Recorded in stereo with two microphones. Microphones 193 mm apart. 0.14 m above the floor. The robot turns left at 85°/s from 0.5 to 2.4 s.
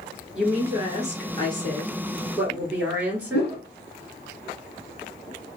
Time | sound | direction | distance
0.3 | a woman speaking | 5° right | 2 m
3.3 | a whoosh | 60° left (ahead or behind) | 1.5 m